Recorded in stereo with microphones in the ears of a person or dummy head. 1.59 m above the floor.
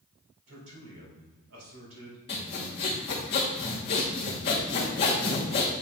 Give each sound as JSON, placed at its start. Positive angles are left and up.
{"t": 0.5, "sound": "a man speaking", "side_deg": -90, "distance_m": 2.5}
{"t": 2.3, "sound": "sawing", "side_deg": 20, "distance_m": 1.1}